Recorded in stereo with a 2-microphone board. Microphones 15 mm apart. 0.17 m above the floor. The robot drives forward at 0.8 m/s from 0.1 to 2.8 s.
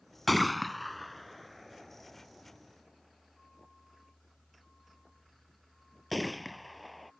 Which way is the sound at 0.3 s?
10° left (ahead or behind).